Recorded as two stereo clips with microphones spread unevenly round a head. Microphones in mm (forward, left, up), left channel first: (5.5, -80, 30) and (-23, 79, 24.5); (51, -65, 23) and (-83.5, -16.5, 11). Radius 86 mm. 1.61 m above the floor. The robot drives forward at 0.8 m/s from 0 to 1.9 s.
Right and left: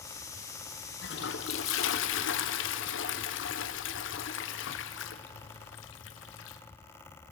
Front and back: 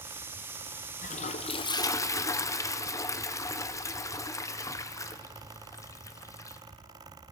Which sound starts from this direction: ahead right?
A toilet flushing, at 1.0 s.